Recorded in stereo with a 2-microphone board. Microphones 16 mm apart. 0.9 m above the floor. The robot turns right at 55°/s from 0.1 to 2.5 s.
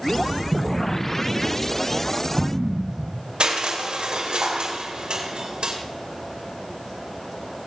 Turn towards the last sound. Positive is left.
turn(degrees=-90)